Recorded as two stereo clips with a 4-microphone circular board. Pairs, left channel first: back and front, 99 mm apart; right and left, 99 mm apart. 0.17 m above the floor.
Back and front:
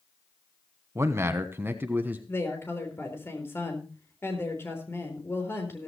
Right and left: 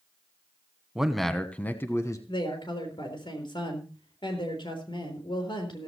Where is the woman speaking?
115° right, 4 m.